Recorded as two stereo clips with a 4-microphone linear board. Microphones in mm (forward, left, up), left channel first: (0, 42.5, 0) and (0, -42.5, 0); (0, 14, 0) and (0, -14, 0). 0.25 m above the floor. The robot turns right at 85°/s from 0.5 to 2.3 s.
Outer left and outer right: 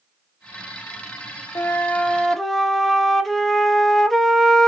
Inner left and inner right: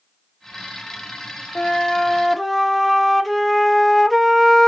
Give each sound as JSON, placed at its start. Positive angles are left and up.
{"t": 1.6, "sound": "a flute", "azimuth_deg": 115, "distance_m": 0.6}